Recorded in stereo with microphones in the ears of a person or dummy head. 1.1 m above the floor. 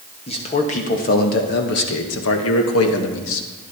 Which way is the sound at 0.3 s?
30° left (ahead or behind).